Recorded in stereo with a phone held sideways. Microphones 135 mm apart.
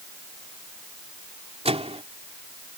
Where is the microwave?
50° right (ahead or behind).